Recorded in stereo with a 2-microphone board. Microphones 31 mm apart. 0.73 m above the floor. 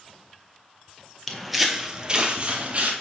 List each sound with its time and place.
1.3 s footsteps: 10° left (ahead or behind), 0.8 m; by 2.9 s 40° right (ahead or behind), 1.1 m